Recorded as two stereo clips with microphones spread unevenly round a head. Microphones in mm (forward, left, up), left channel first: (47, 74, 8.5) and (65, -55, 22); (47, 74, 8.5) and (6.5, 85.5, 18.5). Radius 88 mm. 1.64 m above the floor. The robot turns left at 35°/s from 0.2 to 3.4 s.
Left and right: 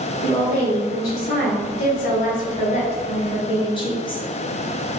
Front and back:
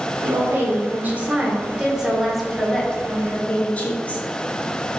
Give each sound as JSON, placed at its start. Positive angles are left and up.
{"t": 0.2, "sound": "a woman speaking", "azimuth_deg": 155, "distance_m": 1.2}